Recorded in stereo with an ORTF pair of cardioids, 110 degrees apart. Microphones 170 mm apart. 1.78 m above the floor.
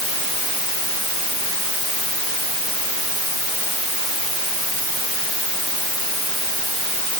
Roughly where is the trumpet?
I don't hear a trumpet.